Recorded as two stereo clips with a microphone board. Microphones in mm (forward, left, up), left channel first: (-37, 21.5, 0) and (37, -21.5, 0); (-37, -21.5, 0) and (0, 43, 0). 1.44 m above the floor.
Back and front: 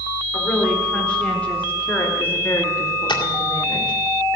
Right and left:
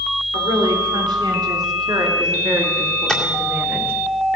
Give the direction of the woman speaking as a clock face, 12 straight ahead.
10 o'clock.